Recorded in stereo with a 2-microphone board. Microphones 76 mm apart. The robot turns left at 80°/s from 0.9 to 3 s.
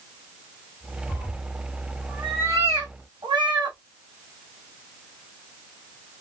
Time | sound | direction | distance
1.1 | a cat meowing | 70° left (ahead or behind) | 3 m